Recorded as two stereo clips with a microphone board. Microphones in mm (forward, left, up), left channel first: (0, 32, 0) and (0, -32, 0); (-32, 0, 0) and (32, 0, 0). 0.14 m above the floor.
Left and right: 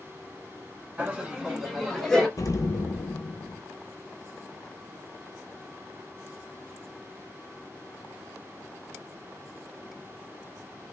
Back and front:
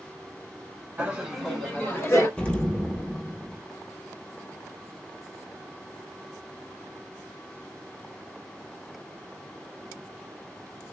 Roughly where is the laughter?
Ahead right.